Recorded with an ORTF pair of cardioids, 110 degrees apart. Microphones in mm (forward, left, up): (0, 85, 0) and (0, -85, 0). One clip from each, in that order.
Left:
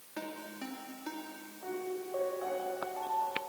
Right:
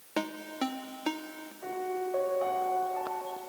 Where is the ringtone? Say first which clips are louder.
Right 8 dB; 65° right, 2.5 m.